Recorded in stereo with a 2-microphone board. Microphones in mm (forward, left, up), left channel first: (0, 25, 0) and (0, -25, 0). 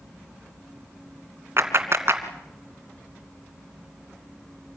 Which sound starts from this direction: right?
A clap, at 1.6 s.